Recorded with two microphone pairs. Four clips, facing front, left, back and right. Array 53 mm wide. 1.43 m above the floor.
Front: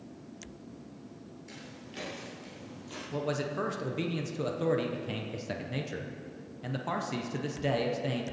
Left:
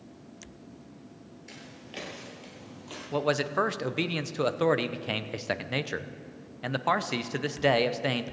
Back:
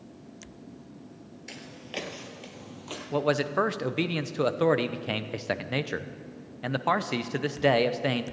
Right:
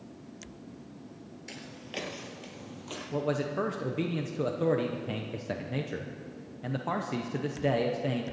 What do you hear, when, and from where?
1.5 s footsteps: 175° right, 1.6 m; by 3.0 s straight behind, 2.5 m
3.1 s a man speaking: 125° left, 0.7 m